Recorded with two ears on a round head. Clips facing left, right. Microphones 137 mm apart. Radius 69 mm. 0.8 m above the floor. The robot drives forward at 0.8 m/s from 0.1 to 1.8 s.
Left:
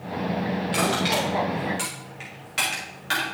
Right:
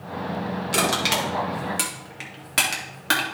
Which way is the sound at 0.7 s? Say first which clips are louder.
Right 1 dB; 50° right (ahead or behind).